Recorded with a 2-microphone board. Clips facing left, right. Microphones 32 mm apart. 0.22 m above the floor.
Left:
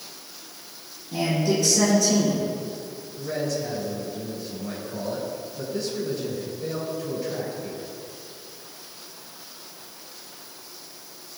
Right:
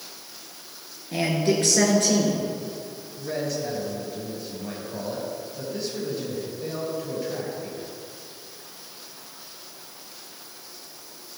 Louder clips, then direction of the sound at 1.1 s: Right 1 dB; 55° right (ahead or behind).